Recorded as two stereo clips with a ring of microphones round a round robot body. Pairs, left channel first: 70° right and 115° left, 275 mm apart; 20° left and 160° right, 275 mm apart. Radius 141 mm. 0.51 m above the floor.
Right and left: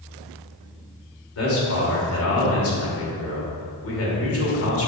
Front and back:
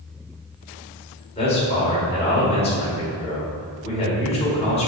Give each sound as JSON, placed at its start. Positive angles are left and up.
{"t": 1.4, "sound": "a man speaking", "azimuth_deg": -40, "distance_m": 2.0}